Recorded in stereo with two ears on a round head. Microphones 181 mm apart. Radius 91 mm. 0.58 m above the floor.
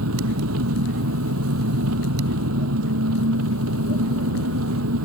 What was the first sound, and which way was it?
An engine running, 80° right.